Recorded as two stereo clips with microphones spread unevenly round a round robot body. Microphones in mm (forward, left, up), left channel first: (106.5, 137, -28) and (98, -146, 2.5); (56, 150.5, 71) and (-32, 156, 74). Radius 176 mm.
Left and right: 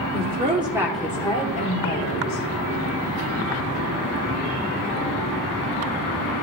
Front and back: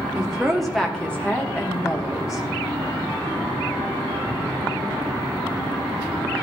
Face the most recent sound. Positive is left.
turn(degrees=55)